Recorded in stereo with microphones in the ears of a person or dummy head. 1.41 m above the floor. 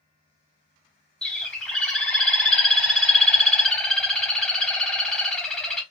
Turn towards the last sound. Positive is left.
turn(degrees=5)  # may be behind; listen again after turning